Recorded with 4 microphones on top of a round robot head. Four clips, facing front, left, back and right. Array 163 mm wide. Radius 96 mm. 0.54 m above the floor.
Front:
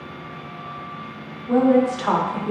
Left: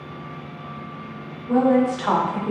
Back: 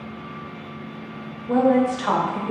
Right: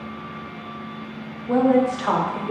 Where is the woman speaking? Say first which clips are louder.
Even, front 1 dB; 85° right, 0.7 m; by 2.5 s 60° left, 0.7 m.